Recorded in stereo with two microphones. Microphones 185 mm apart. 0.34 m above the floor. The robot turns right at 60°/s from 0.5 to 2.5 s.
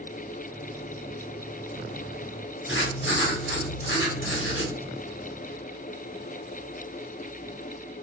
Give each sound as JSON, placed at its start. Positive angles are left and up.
{"t": 2.7, "sound": "writing", "side_deg": 85, "distance_m": 1.4}